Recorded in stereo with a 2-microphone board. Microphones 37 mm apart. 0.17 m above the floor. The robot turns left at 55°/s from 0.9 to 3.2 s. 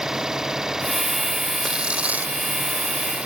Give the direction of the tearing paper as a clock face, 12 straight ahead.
1 o'clock.